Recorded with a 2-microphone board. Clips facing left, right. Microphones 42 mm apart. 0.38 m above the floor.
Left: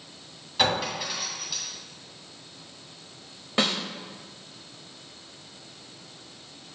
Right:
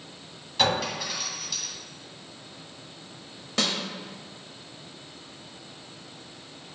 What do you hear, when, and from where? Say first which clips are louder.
0.6 s a clink: even; 5° left (ahead or behind), 2.5 m
3.6 s a snare drum: left 2 dB; 20° left (ahead or behind), 1.1 m